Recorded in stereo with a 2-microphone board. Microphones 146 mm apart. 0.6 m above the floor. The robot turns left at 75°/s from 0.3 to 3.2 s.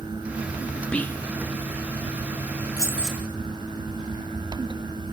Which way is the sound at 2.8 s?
25° left.